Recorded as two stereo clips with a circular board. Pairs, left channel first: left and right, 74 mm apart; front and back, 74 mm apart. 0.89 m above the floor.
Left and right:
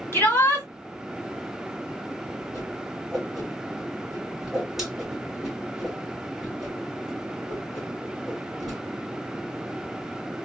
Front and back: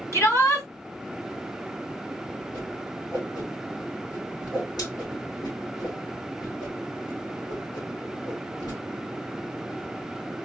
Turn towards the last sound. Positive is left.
turn(degrees=-5)